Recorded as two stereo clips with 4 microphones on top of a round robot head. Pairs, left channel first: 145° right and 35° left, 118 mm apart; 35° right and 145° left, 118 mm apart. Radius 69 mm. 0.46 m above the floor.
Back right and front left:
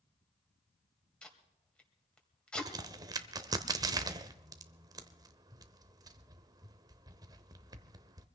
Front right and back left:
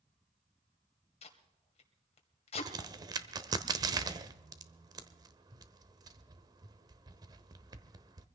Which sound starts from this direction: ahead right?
Tape being pulled, at 1.2 s.